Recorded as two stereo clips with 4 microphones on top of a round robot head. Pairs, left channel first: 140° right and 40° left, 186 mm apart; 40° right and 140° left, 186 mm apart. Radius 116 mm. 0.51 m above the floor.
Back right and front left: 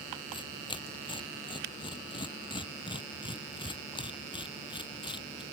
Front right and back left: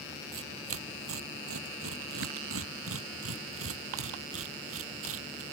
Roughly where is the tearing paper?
Behind left.